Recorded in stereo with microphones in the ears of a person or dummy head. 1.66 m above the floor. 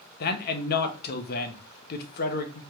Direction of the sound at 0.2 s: 55° left (ahead or behind).